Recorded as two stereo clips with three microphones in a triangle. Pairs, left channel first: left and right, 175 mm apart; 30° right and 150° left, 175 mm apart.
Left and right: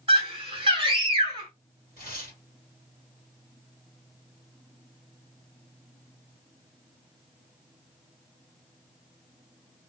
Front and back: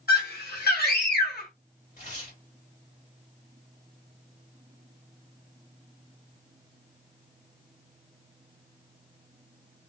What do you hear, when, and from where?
0.1 s a scream: 30° right, 1.2 m
2.0 s tearing paper: 55° right, 2 m